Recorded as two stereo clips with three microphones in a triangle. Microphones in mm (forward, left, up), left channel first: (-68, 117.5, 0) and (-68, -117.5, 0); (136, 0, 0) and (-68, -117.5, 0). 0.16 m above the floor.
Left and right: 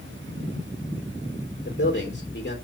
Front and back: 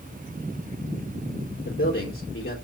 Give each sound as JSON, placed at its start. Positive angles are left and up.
{"t": 1.6, "sound": "a man speaking", "azimuth_deg": 55, "distance_m": 4.0}